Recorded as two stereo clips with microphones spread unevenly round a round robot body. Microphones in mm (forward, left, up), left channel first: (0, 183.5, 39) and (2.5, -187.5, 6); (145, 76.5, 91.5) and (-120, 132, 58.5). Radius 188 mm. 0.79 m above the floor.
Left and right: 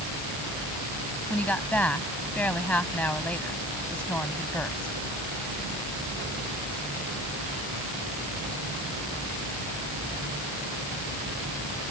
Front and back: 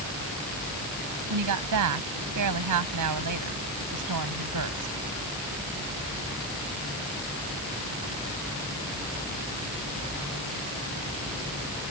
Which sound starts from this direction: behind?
A woman speaking, at 1.3 s.